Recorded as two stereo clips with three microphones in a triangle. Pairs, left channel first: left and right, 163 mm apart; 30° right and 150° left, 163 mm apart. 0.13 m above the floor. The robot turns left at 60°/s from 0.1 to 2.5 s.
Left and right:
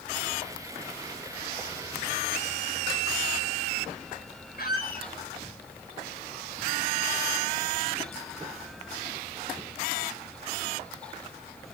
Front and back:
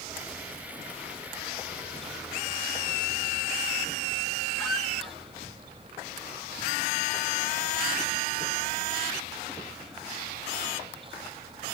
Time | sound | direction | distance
4.6 | a squeak | 60° left | 3 m